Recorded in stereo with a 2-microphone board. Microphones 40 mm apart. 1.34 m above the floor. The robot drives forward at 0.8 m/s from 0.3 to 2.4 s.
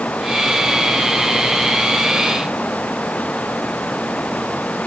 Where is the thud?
No thud in this recording.